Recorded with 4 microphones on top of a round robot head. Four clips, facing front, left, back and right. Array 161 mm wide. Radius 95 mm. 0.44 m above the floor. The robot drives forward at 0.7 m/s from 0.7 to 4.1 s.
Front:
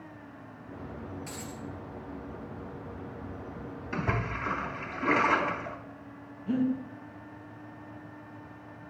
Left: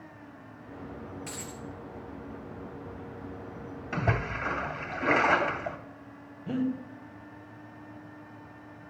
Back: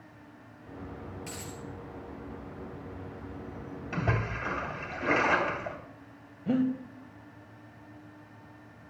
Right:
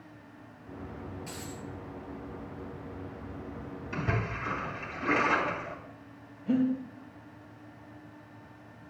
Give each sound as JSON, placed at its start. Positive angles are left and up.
{"t": 1.3, "sound": "a dropped coin", "azimuth_deg": 115, "distance_m": 3.0}
{"t": 3.9, "sound": "a splash", "azimuth_deg": 115, "distance_m": 2.0}
{"t": 6.5, "sound": "breathing", "azimuth_deg": 170, "distance_m": 1.7}